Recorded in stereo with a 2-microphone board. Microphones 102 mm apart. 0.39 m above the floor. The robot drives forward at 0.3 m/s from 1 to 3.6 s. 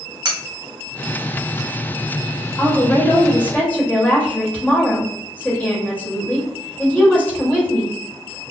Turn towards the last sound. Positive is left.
turn(degrees=15)  # may be behind; listen again after turning